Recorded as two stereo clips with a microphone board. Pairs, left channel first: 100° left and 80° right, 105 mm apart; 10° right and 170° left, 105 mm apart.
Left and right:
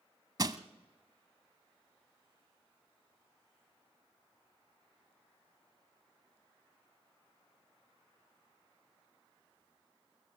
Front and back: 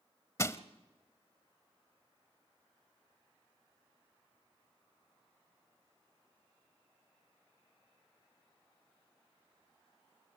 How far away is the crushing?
About 0.8 m.